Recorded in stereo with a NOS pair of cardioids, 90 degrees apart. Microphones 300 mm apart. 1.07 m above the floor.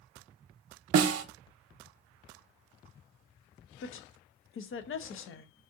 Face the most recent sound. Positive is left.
turn(degrees=45)